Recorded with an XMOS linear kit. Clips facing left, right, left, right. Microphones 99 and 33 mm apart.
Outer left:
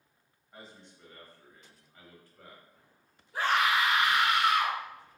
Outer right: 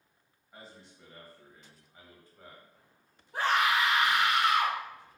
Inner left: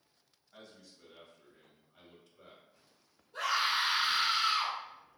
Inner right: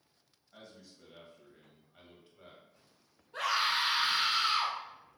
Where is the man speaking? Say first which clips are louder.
Even, inner right 1 dB; 5° right (ahead or behind), 1.0 m; by 2.6 s 20° right (ahead or behind), 1.2 m.